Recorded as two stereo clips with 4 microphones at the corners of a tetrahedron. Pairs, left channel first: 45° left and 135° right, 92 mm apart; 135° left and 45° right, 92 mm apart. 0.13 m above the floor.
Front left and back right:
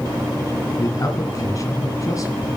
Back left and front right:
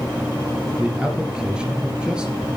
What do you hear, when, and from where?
0.8 s a man speaking: 30° left, 2 m